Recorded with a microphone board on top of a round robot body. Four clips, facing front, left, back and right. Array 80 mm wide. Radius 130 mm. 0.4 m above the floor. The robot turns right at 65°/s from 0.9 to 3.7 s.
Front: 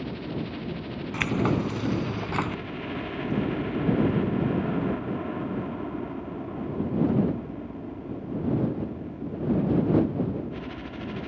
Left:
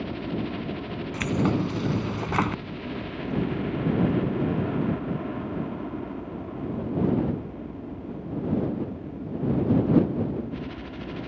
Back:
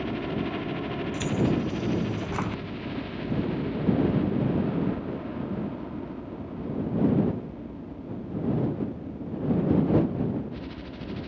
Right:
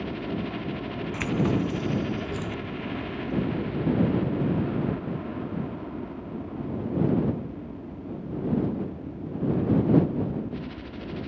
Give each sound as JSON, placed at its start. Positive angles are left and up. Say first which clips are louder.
{"t": 0.0, "sound": "a helicopter", "louder": "left 1 dB, back 3 dB", "azimuth_deg": -165}
{"t": 1.1, "sound": "keys jangling", "louder": "left 1 dB, front 1 dB", "azimuth_deg": -5}